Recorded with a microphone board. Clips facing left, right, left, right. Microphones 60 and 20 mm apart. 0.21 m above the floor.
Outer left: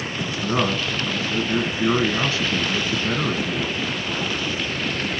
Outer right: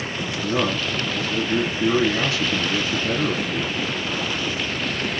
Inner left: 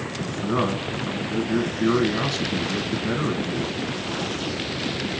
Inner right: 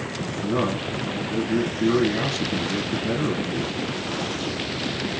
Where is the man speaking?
40° left (ahead or behind), 1.6 m.